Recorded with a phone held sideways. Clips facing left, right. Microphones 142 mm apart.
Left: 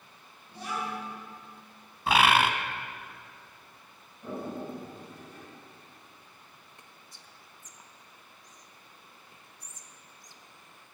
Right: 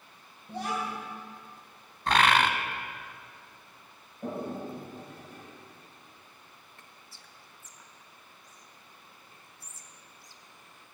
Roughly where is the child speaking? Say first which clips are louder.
Right 2 dB; right.